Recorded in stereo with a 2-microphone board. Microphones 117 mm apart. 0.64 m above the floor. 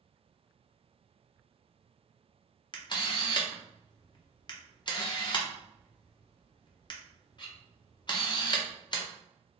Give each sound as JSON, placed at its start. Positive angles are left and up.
{"t": 2.7, "sound": "a camera shutter", "side_deg": 40, "distance_m": 0.6}